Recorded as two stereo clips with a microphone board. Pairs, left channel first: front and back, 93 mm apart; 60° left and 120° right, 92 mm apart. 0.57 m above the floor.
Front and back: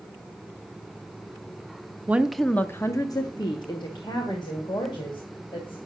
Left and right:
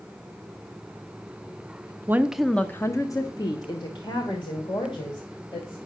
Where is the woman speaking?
140° right, 0.6 m; by 5.8 s 30° left, 3 m.